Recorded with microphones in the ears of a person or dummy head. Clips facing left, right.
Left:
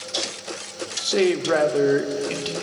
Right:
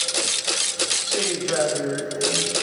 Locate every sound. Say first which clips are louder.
1.0 s a man speaking: left 9 dB; 85° left, 0.6 m